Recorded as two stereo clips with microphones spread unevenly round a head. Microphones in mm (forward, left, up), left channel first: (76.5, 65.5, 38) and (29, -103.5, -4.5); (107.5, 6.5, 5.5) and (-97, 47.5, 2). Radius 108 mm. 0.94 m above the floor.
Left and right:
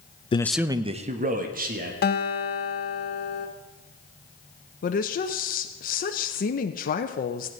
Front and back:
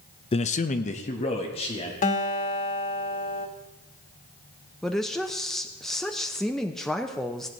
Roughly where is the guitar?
Ahead left.